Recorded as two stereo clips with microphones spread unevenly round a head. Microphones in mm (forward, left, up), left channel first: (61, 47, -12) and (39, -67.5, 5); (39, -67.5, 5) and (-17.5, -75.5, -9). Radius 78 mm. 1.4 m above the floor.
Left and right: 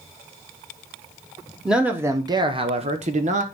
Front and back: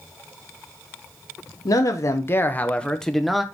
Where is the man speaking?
15° right, 1.2 m; by 3.4 s 90° right, 1.5 m.